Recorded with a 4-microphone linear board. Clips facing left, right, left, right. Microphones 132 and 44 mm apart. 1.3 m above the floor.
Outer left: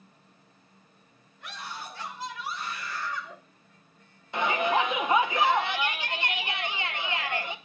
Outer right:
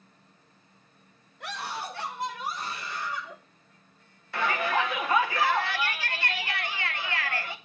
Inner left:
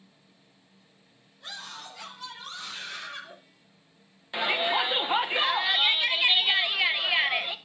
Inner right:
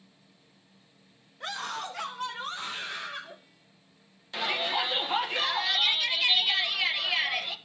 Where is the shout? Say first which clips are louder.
Outer left 2 dB, inner left 3 dB; 20° left (ahead or behind), 1.3 m.